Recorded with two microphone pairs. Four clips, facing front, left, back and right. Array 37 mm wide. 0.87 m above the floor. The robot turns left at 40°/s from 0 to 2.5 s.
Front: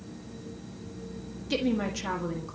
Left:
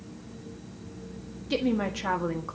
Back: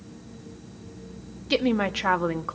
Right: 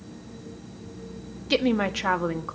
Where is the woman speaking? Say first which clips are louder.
Right 4 dB, back 5 dB; 120° right, 1.4 m; by 2.6 s 160° right, 1.4 m.